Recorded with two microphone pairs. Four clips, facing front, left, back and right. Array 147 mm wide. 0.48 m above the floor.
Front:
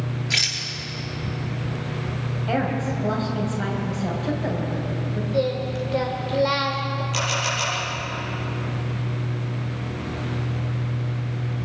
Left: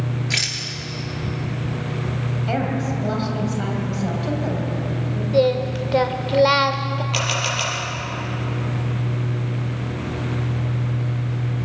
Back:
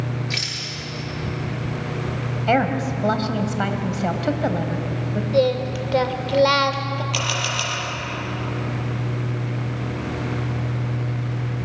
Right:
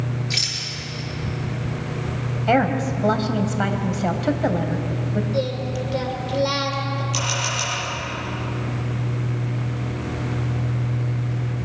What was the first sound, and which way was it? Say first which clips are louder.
A rattle: left 3 dB, even; 65° left.